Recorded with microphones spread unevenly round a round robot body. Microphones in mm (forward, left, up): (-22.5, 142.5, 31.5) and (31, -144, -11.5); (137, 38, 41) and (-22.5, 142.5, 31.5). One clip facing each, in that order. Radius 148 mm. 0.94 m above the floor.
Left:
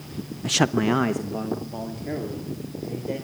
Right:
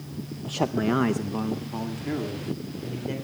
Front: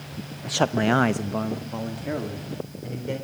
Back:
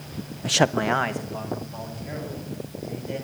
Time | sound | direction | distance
0.4 | a man speaking | 130° left | 0.6 m